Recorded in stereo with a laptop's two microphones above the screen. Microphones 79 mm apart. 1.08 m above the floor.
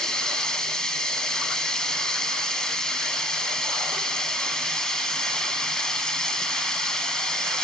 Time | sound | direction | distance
0.0 | running water | 10° left (ahead or behind) | 1.1 m